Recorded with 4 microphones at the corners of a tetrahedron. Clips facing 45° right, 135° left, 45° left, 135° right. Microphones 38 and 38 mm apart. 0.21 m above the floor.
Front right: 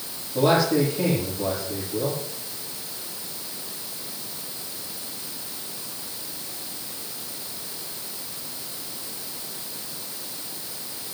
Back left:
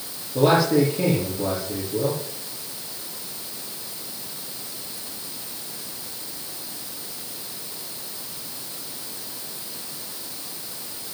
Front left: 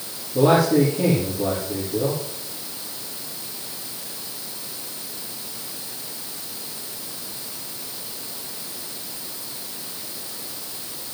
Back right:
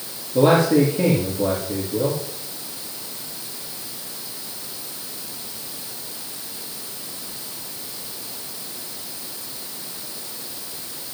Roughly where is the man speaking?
Behind.